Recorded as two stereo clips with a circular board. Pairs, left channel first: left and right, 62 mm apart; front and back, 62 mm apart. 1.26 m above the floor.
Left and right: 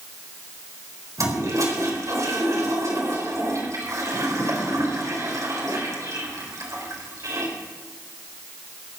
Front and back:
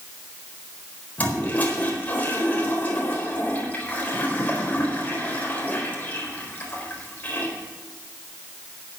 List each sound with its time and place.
1.2 s a toilet flushing: 65° right, 4 m